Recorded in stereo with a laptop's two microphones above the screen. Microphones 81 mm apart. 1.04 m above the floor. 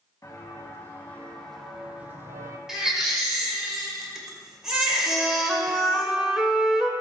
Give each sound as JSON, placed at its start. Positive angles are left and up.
{"t": 0.2, "sound": "footsteps", "side_deg": 35, "distance_m": 3.0}
{"t": 2.7, "sound": "a baby crying", "side_deg": -10, "distance_m": 1.8}
{"t": 5.1, "sound": "a flute", "side_deg": -10, "distance_m": 1.0}